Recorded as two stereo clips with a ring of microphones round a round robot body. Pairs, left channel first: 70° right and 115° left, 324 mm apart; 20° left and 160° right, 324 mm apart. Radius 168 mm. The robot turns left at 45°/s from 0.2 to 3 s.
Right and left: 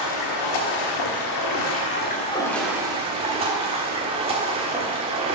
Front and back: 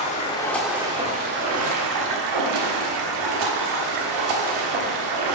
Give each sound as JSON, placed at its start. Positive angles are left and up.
{"t": 0.0, "sound": "running water", "azimuth_deg": -50, "distance_m": 1.3}